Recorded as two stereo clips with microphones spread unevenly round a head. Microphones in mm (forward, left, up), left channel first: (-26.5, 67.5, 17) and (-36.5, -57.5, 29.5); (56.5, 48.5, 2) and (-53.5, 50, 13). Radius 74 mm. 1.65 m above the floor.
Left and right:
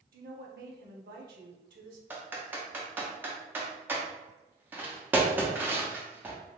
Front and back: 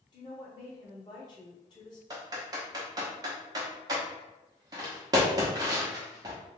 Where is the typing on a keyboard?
155° right, 0.8 m.